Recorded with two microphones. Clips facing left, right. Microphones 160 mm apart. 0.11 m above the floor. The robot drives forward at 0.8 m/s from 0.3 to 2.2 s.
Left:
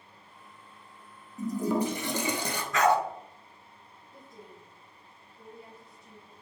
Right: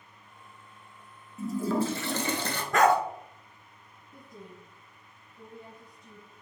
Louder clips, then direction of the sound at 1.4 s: Even; 15° left (ahead or behind).